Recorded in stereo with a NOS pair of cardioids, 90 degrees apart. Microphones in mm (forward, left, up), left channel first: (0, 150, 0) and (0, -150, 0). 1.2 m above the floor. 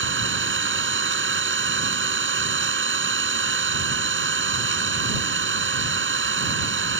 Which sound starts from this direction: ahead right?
An engine running, at 0.0 s.